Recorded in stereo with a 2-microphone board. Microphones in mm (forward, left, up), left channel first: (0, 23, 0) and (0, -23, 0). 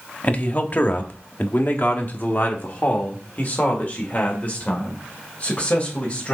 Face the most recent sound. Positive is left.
turn(degrees=35)  # may be behind; listen again after turning